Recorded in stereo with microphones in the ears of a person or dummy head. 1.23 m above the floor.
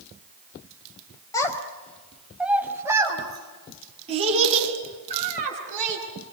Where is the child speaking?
20° left (ahead or behind), 3.5 m; by 6.0 s 40° right (ahead or behind), 8 m.